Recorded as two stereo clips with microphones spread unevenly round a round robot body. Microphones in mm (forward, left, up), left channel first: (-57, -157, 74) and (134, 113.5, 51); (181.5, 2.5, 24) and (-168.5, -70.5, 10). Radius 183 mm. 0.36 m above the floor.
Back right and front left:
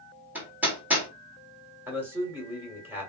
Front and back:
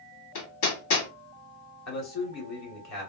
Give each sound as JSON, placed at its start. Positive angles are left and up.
{"t": 0.3, "sound": "hammering", "azimuth_deg": -30, "distance_m": 1.5}
{"t": 1.9, "sound": "a man speaking", "azimuth_deg": -25, "distance_m": 1.9}